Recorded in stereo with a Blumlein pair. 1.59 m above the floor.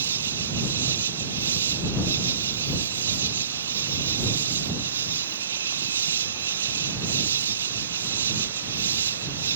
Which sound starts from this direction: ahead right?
An insect, at 0.0 s.